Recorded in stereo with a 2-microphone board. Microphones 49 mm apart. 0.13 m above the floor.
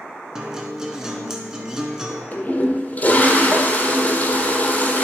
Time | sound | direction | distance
0.3 | a guitar | 15° right (ahead or behind) | 1.0 m
2.3 | a toilet flushing | 35° left (ahead or behind) | 1.4 m